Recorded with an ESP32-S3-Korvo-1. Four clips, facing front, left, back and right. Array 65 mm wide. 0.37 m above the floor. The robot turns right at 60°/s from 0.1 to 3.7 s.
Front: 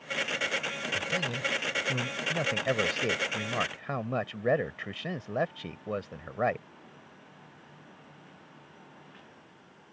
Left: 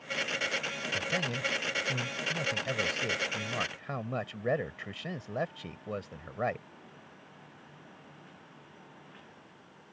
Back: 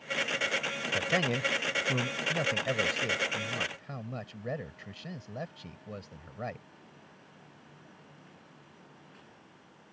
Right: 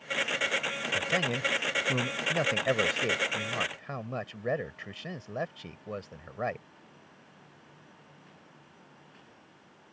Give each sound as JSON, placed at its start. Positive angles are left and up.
{"t": 0.9, "sound": "a man speaking", "azimuth_deg": -165}